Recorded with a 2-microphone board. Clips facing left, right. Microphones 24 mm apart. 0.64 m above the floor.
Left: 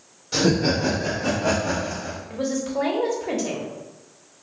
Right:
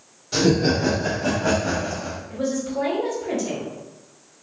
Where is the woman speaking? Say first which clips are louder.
Even; 30° left (ahead or behind), 1.2 m.